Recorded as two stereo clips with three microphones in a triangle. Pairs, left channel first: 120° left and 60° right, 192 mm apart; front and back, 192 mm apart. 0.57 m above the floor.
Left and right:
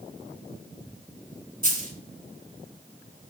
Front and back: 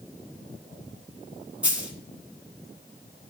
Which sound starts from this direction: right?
A dropped coin, at 1.6 s.